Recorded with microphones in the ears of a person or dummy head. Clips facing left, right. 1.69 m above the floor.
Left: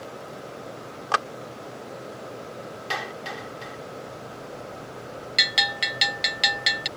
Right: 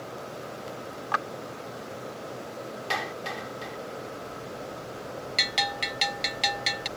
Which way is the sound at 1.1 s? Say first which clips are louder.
Left 5 dB; 50° left (ahead or behind).